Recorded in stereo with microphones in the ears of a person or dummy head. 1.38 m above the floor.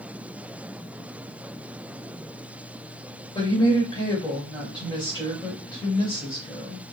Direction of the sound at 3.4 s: 20° left (ahead or behind).